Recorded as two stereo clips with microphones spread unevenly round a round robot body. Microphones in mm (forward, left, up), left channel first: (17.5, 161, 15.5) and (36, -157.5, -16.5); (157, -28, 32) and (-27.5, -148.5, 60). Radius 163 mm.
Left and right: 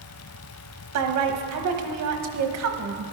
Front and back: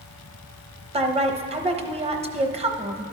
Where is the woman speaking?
85° right, 1.1 m.